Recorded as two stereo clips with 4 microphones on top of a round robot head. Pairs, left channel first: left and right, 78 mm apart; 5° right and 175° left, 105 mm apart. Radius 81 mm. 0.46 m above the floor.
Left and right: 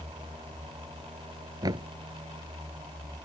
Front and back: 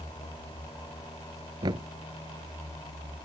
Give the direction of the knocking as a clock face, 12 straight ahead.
4 o'clock.